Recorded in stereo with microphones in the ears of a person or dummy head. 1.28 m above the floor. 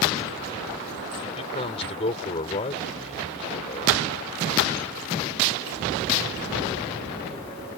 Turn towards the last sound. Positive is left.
turn(degrees=30)  # may be behind; listen again after turning